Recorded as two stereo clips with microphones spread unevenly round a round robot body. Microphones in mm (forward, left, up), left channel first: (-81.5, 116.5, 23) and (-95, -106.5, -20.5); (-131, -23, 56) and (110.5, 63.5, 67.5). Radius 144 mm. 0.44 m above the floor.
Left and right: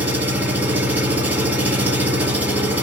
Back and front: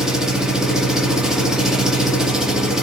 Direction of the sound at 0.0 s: 70° right.